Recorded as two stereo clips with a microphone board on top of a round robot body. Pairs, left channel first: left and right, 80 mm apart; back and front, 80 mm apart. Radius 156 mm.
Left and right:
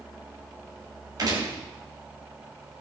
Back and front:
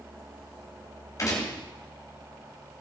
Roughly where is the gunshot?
Behind right.